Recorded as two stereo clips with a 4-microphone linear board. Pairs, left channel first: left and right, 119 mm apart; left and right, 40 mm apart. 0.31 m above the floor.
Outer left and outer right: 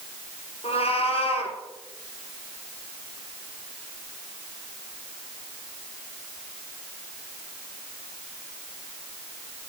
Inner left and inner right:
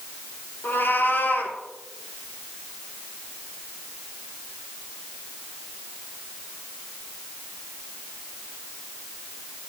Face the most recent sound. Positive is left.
turn(degrees=55)  # may be behind; listen again after turning